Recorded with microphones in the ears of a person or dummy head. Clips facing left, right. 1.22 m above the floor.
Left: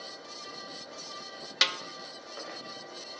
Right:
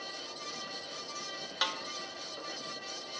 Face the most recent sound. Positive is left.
turn(degrees=35)  # may be behind; listen again after turning